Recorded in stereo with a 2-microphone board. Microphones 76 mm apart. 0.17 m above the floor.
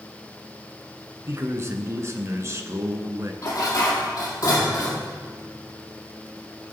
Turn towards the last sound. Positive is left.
turn(degrees=45)  # may be behind; listen again after turning